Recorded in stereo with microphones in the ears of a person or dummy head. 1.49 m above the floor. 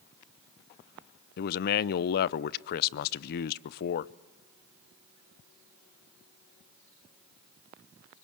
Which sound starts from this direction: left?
A man speaking, at 1.4 s.